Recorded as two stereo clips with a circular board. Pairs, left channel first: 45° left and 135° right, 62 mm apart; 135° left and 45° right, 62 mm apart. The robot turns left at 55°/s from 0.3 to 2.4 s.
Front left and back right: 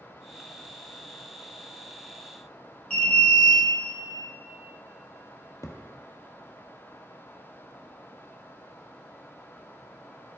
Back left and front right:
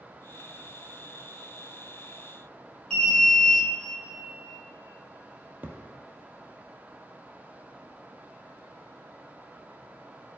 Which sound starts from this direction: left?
An alarm, at 2.9 s.